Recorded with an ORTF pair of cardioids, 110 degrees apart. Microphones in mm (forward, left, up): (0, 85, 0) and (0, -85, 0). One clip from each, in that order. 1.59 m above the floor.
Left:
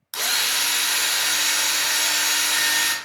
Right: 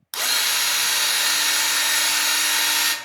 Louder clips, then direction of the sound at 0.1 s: Right 1 dB; 10° right.